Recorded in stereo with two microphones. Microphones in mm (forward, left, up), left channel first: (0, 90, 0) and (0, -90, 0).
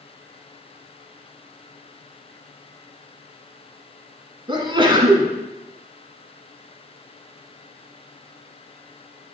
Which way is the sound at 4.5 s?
30° right (ahead or behind).